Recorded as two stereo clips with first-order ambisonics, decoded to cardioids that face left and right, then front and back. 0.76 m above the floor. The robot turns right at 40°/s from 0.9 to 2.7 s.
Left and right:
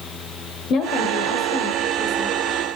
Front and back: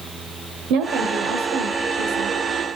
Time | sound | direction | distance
0.7 | a woman speaking | 145° left | 2.5 m